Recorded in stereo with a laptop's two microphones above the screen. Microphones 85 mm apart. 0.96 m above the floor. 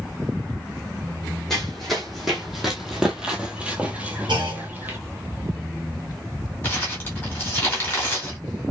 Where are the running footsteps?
5° left (ahead or behind), 1.7 m; by 5.0 s 25° right (ahead or behind), 1.1 m.